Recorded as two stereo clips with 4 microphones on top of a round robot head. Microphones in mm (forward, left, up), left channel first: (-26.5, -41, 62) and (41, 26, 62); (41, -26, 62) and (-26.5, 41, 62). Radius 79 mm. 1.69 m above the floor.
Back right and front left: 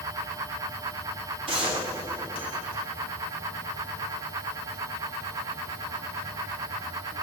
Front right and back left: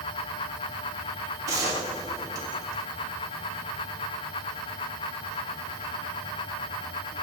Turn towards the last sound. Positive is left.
turn(degrees=80)